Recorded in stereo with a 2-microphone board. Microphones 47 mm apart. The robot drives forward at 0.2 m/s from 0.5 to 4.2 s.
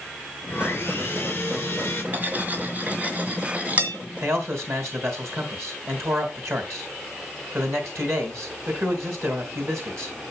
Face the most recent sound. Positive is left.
turn(degrees=-65)  # may be behind; listen again after turning